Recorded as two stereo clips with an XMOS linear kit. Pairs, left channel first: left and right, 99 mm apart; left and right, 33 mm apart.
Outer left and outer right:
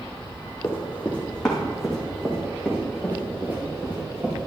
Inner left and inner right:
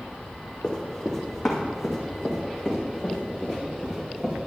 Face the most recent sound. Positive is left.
turn(degrees=-20)  # may be behind; listen again after turning